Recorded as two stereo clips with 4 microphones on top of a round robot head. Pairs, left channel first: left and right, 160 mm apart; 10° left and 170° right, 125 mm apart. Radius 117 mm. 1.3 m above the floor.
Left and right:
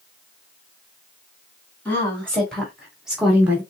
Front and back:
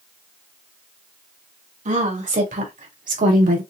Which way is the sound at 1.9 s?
170° left.